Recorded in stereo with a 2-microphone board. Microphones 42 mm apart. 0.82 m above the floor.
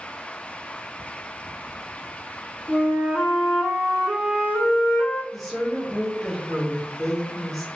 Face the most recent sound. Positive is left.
turn(degrees=0)  # may be behind; listen again after turning